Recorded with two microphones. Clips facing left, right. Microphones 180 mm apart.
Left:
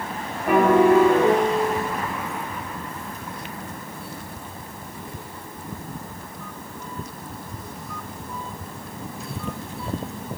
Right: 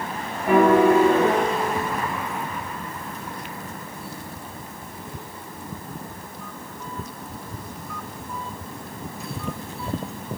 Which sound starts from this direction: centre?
A piano, at 0.5 s.